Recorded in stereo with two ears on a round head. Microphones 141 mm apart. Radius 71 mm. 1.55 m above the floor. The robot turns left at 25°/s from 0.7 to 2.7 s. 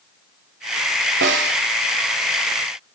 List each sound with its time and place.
1.2 s a snare drum: 80° right, 0.7 m